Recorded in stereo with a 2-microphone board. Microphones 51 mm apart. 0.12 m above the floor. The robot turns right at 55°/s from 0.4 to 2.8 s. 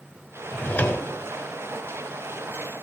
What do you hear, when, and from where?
0.5 s a drawer: 30° left, 0.9 m; by 1.1 s 65° left, 0.9 m